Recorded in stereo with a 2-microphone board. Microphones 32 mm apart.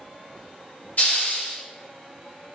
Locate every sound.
1.0 s a hiss: 55° left (ahead or behind), 2.5 m